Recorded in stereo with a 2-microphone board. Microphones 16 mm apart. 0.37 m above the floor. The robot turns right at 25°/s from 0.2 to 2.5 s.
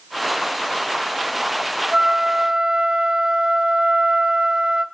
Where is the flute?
50° right (ahead or behind), 1.8 m; by 4.8 s 55° right (ahead or behind), 1.8 m.